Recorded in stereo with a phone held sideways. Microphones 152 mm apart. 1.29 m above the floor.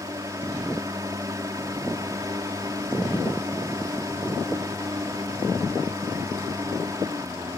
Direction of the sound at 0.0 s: 25° right (ahead or behind).